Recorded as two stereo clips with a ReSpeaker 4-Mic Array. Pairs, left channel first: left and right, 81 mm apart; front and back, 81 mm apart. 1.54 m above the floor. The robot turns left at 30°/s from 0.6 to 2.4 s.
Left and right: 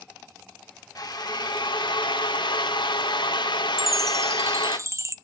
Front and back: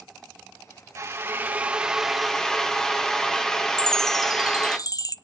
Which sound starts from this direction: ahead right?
A chime, at 3.8 s.